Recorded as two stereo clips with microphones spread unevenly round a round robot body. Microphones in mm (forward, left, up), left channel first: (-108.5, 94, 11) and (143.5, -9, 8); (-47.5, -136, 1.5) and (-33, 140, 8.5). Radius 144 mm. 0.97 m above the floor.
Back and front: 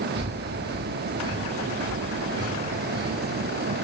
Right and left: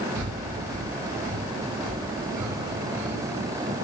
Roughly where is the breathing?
Ahead left.